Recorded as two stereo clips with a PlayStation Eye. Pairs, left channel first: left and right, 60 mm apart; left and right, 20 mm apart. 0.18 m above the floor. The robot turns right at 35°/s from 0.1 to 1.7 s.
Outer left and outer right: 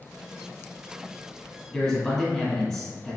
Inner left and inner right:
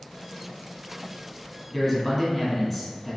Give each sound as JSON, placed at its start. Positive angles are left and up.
{"t": 1.7, "sound": "a man speaking", "side_deg": 10, "distance_m": 1.6}